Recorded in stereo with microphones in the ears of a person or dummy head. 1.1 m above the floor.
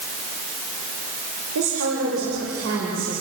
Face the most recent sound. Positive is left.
turn(degrees=-80)